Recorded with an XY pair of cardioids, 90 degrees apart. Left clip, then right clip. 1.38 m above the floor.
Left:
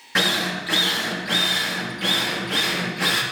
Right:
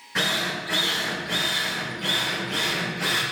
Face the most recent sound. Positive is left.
turn(degrees=65)